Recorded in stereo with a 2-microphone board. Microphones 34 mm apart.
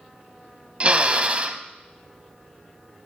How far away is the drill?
About 0.6 m.